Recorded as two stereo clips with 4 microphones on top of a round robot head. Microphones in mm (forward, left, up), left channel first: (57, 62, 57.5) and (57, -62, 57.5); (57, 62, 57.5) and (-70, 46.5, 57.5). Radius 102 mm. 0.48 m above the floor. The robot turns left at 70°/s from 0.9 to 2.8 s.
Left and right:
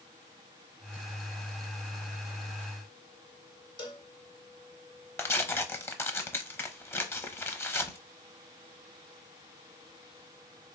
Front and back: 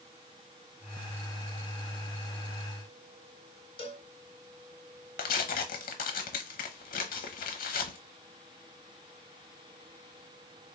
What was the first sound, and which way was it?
A cowbell, 40° left.